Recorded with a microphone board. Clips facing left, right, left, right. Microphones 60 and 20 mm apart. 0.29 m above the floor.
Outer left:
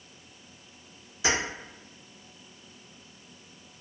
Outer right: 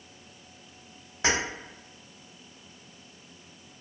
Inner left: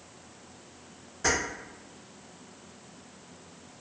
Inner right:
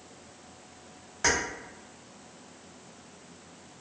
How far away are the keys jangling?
About 1.1 m.